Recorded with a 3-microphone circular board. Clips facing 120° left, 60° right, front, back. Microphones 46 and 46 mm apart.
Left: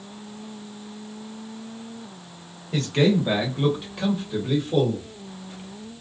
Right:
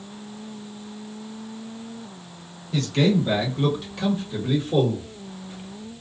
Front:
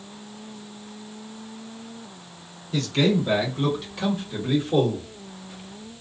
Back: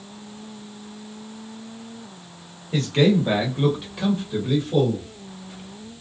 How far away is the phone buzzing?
No phone buzzing in this recording.